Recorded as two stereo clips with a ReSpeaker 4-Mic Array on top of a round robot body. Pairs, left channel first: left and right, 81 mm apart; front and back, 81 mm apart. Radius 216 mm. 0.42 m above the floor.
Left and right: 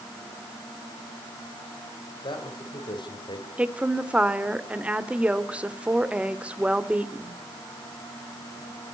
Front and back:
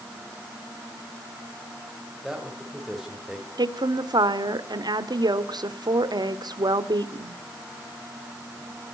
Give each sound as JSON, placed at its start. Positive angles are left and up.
{"t": 2.2, "sound": "a man speaking", "azimuth_deg": 90, "distance_m": 4.0}
{"t": 3.6, "sound": "a woman speaking", "azimuth_deg": -165, "distance_m": 2.0}